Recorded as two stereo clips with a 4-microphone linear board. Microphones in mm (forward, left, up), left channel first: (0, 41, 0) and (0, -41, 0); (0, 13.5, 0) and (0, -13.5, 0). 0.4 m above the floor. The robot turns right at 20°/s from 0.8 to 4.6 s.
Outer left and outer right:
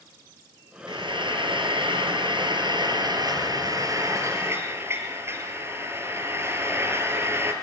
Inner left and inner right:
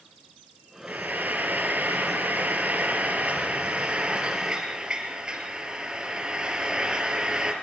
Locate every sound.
0.9 s frying: 105° right, 4.5 m; by 7.5 s 30° right, 4.5 m